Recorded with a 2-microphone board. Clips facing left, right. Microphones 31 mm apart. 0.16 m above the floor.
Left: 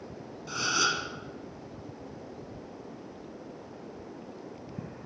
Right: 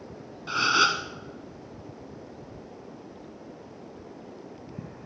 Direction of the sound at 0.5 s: 35° right (ahead or behind).